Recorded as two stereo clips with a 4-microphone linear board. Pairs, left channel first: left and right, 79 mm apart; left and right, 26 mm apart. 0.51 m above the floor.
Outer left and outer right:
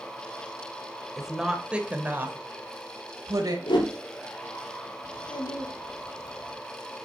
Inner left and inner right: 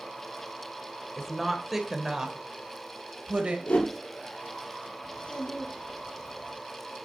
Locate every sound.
1.2 s a woman speaking: centre (ahead or behind), 1.7 m; by 3.6 s 55° right (ahead or behind), 1.8 m
3.7 s a whoosh: 80° left, 3 m
5.0 s a child speaking: 75° left (ahead or behind), 3 m